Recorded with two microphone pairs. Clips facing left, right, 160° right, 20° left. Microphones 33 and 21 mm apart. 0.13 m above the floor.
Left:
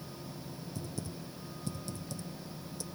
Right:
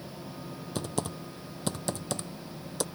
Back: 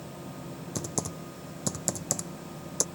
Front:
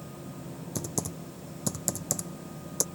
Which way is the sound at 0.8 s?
85° right.